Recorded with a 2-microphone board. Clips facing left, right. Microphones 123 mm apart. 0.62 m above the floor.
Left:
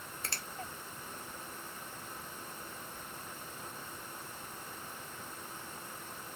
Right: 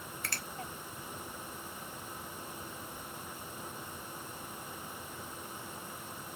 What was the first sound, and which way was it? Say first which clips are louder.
A finger snap: right 1 dB; 25° left (ahead or behind).